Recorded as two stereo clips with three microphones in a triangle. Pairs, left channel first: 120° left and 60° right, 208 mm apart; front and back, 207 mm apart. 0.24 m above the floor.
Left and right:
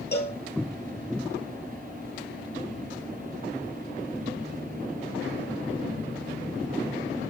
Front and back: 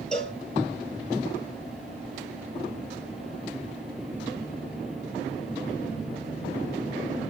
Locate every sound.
0.1 s a cowbell: 85° left, 1.0 m